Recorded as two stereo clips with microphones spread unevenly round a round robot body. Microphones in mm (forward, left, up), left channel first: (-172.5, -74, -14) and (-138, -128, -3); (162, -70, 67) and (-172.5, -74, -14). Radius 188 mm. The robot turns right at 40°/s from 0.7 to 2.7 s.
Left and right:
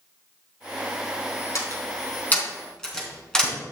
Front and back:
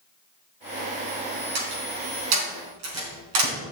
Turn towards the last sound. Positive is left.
turn(degrees=-160)